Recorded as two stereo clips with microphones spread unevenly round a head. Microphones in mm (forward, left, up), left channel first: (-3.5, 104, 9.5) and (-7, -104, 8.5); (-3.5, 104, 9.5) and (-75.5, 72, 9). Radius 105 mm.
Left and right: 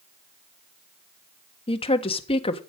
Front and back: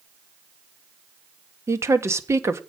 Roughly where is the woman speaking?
Behind left.